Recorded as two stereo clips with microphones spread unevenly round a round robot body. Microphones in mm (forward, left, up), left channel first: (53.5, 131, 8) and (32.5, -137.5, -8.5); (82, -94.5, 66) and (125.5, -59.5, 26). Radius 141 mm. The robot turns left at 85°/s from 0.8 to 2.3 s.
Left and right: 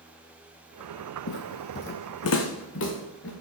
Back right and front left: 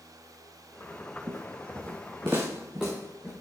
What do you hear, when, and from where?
1.3 s footsteps: 100° left, 0.7 m; by 3.3 s 135° left, 2.5 m